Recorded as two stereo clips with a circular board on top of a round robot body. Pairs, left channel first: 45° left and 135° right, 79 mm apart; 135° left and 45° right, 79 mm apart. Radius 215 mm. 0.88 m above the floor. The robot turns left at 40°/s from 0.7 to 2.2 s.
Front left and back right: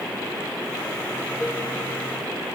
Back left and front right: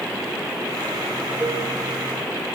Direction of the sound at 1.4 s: 110° right.